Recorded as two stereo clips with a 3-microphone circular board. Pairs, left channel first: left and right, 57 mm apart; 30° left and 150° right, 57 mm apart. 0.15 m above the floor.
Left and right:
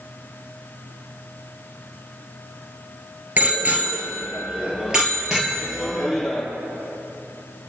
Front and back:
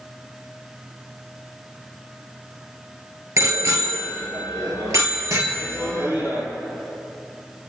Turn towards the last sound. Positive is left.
turn(degrees=180)